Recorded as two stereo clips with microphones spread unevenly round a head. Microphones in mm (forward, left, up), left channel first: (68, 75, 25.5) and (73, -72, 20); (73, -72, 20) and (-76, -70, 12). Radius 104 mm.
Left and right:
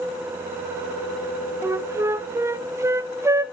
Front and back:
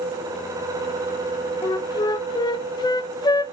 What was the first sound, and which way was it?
A flute, 40° right.